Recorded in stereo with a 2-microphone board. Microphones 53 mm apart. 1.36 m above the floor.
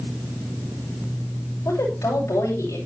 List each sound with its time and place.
1.6 s a woman speaking: 80° left, 7.5 m